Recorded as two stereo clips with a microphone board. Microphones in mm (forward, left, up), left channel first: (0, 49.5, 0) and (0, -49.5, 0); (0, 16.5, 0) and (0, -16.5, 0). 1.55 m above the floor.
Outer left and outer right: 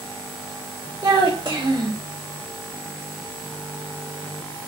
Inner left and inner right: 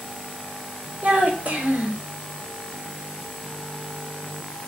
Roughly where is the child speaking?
Right.